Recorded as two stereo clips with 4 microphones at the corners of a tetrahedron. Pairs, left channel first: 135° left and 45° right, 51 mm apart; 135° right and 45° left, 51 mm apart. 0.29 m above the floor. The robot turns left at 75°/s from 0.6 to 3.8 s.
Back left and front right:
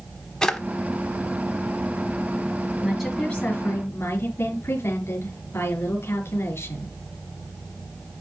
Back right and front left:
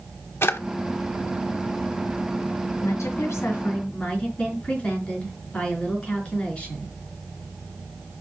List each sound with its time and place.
0.4 s a drawer: 150° right, 1.0 m
2.8 s a woman speaking: 125° right, 4 m; by 7.0 s 160° left, 4 m